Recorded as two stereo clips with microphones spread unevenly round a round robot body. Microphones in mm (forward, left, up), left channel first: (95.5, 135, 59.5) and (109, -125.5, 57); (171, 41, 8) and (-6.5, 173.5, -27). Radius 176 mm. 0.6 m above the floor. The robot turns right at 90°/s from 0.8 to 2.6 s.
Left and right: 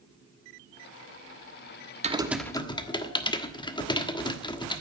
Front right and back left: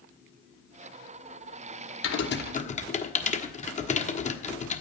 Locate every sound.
2.0 s typing on a keyboard: 30° right, 1.4 m; by 4.8 s 20° left, 1.4 m